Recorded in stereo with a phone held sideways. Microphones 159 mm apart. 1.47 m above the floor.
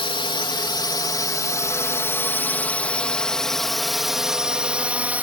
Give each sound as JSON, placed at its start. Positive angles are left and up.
{"t": 0.0, "sound": "a drone", "side_deg": 35}